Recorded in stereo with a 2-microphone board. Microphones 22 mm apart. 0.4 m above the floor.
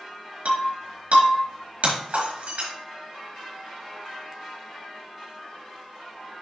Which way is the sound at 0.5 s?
70° right (ahead or behind).